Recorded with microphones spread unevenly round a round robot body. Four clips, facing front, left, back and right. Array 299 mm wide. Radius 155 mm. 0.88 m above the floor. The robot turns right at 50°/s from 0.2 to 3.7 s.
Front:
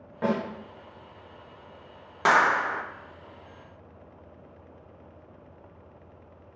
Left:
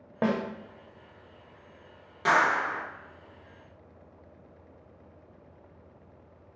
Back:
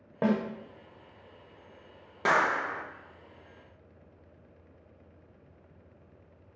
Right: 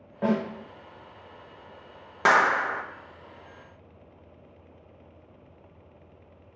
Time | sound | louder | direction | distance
0.2 | a snare drum | right 2 dB, even | 110° left | 1.2 m
2.2 | a clap | right 3 dB, front 5 dB | 100° right | 0.8 m